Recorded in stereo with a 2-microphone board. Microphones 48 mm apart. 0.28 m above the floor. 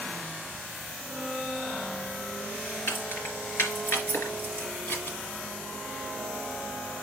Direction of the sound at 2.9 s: 70° left (ahead or behind).